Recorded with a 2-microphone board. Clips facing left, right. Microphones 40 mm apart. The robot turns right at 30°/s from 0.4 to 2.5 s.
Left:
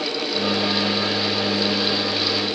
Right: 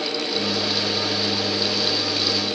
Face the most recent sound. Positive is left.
No sound to turn to.